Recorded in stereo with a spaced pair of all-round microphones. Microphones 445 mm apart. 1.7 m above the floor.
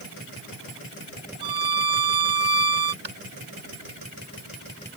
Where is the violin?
60° right (ahead or behind).